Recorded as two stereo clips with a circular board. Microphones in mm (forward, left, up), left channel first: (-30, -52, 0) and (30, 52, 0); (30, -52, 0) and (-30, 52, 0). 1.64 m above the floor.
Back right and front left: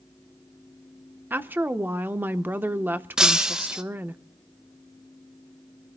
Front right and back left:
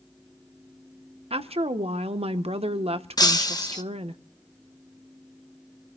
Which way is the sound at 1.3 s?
130° left.